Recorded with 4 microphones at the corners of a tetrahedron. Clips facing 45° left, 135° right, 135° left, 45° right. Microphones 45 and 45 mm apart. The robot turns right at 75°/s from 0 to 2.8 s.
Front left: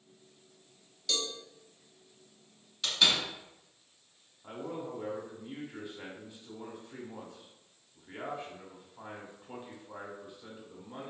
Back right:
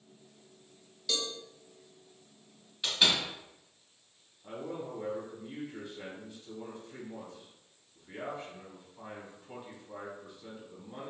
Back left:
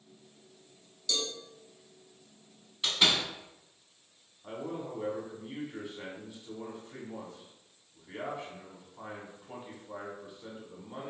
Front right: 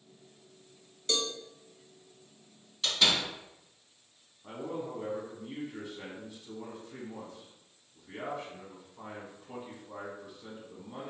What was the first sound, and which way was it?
A cowbell, 55° right.